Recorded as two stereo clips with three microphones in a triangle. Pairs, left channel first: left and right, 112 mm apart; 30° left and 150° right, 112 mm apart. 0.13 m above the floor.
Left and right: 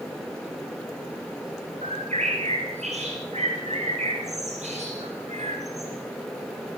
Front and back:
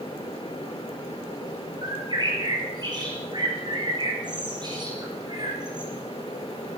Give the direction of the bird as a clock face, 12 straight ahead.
3 o'clock.